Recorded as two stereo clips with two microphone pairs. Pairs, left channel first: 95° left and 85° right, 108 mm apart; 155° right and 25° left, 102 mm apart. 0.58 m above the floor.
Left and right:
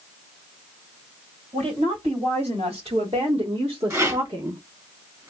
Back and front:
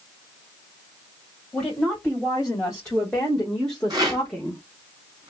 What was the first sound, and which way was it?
A woman speaking, 75° right.